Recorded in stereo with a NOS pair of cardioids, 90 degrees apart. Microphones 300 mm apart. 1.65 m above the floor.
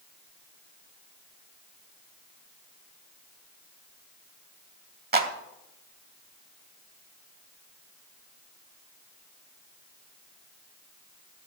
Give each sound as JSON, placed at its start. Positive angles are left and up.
{"t": 5.1, "sound": "a clap", "azimuth_deg": -30, "distance_m": 2.5}